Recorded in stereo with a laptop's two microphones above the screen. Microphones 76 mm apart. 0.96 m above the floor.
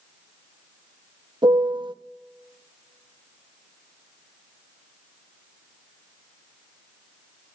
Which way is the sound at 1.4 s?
80° right.